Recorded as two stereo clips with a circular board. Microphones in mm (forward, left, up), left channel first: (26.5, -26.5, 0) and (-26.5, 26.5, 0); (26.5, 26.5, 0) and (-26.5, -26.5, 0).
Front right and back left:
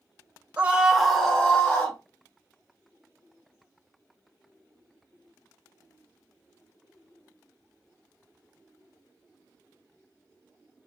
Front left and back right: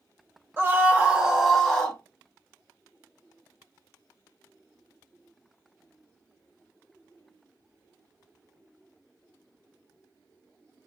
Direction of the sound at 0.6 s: 170° right.